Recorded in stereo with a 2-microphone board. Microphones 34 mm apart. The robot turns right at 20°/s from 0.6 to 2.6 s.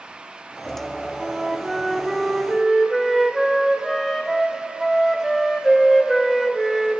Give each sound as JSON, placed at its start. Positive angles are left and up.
{"t": 1.2, "sound": "a flute", "side_deg": -10, "distance_m": 1.0}